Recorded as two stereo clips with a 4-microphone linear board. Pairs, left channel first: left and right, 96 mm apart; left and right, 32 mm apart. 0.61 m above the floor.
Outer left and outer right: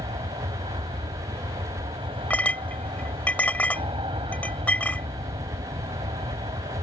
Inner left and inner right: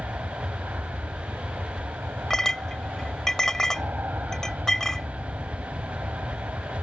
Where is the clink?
15° left (ahead or behind).